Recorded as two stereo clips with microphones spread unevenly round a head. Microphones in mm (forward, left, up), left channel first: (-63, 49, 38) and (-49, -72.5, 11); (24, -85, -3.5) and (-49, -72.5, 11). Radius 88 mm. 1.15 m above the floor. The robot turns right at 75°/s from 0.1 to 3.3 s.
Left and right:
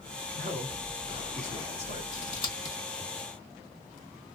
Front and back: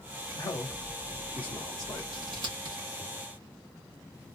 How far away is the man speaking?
About 1.9 m.